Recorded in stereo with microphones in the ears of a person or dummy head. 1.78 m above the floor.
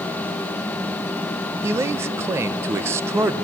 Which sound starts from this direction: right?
A man speaking, at 1.6 s.